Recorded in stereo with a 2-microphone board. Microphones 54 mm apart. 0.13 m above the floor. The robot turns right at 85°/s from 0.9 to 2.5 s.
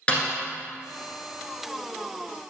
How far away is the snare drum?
About 1.1 m.